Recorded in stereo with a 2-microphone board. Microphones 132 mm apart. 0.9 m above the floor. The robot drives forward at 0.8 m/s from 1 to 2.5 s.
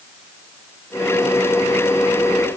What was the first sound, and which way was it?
Only background noise.